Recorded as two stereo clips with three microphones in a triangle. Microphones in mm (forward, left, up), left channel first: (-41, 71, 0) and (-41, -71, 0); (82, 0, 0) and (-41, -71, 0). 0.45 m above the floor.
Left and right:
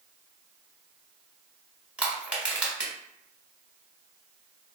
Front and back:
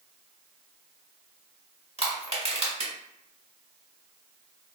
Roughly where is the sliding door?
I don't hear a sliding door.